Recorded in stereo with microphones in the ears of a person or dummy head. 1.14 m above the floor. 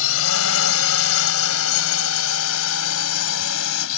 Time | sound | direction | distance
0.0 | a drone | 70° left (ahead or behind) | ?